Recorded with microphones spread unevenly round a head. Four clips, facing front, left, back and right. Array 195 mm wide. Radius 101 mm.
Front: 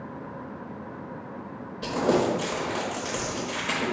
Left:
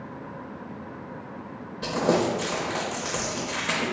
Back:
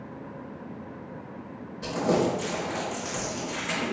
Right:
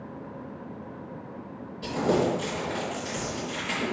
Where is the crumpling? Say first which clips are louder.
Left 1 dB, front 1 dB; 60° left, 1.0 m.